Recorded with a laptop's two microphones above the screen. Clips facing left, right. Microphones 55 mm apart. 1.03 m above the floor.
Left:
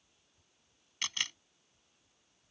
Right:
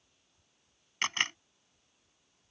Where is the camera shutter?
40° right (ahead or behind).